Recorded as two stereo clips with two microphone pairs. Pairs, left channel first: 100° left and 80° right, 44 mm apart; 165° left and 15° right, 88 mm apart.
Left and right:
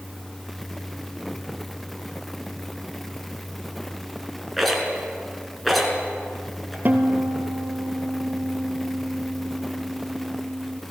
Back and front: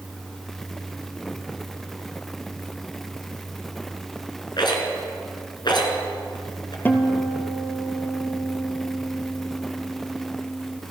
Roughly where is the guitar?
Behind right.